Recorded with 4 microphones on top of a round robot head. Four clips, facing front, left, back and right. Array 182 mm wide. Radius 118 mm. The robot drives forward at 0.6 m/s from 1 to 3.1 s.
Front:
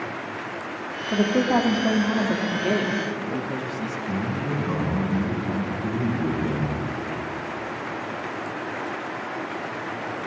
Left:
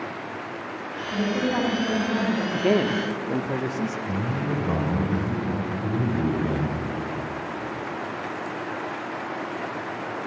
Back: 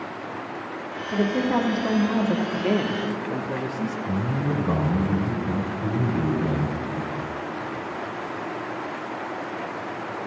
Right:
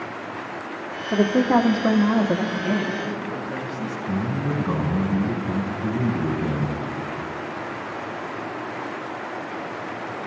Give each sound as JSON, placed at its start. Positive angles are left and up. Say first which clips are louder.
{"t": 1.1, "sound": "a woman speaking", "louder": "right 7 dB, front 2 dB", "azimuth_deg": -65, "distance_m": 1.3}
{"t": 2.5, "sound": "a man speaking", "louder": "left 3 dB, even", "azimuth_deg": 90, "distance_m": 1.1}
{"t": 4.1, "sound": "a man speaking", "louder": "right 2 dB, even", "azimuth_deg": 145, "distance_m": 3.5}